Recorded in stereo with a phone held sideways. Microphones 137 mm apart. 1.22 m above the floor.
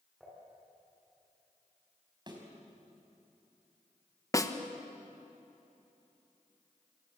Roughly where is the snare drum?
Left.